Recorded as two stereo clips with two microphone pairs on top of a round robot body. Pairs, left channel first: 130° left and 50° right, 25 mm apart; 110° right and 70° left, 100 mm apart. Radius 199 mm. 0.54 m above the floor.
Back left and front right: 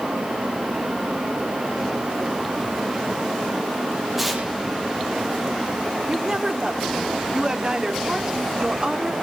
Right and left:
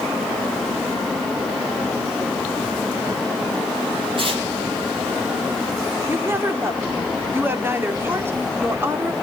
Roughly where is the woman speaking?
Ahead.